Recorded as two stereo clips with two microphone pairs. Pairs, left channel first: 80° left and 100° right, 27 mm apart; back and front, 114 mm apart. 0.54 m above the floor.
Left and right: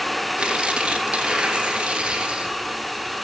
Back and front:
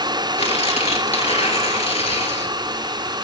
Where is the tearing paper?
160° right, 3 m.